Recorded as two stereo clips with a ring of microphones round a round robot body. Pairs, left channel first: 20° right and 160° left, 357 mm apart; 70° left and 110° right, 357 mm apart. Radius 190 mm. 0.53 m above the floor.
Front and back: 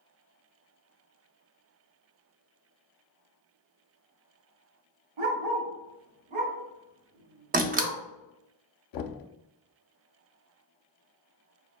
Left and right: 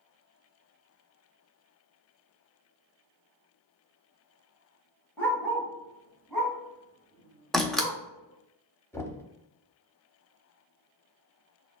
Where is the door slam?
155° left, 0.5 m.